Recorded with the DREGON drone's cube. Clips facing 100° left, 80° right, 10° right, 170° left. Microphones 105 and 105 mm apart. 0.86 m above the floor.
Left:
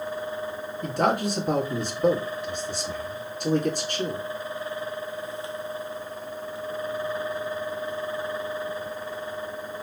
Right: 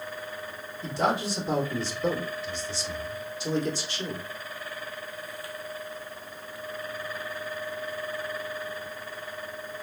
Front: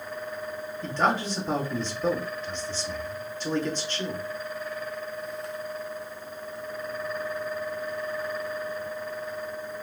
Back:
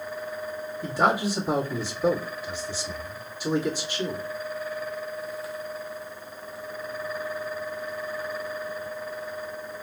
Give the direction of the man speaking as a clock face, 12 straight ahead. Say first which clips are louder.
Left 3 dB, back 2 dB; 9 o'clock.